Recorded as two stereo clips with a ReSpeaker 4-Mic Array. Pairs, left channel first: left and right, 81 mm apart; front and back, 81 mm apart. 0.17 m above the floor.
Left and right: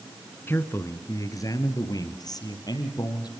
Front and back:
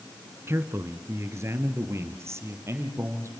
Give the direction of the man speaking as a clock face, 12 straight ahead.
7 o'clock.